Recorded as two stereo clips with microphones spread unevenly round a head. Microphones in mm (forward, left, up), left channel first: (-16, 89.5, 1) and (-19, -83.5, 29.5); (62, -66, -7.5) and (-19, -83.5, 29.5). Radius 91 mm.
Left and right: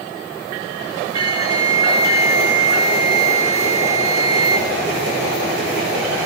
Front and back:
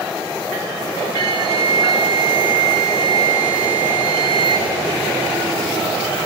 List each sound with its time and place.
1.1 s a flute: 160° right, 6.5 m